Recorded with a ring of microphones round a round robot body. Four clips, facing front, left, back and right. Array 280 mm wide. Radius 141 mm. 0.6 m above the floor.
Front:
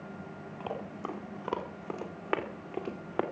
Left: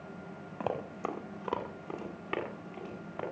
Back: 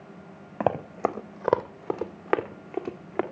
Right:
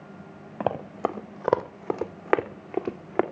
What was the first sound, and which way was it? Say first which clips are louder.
Running footsteps: right 8 dB, back 13 dB; 155° right.